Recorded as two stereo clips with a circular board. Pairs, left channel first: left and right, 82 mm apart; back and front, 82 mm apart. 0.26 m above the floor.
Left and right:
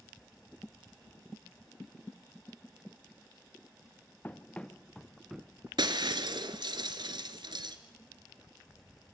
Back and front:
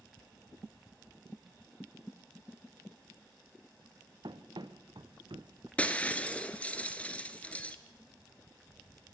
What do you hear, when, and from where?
4.2 s running footsteps: 20° left, 1.4 m; by 5.7 s 25° right, 0.6 m
5.8 s breaking glass: 105° right, 1.4 m